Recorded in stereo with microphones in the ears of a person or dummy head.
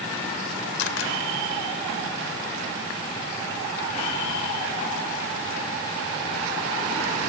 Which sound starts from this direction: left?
A camera shutter, at 0.8 s.